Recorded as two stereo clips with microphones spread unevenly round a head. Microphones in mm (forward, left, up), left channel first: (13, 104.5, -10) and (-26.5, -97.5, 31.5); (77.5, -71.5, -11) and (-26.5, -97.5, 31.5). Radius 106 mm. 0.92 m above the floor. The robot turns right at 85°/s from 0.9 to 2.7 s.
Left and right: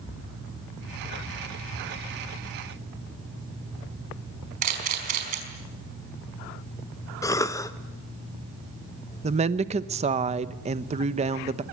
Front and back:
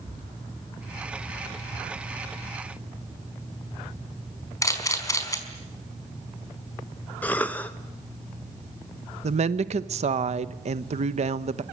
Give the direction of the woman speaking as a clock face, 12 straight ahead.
5 o'clock.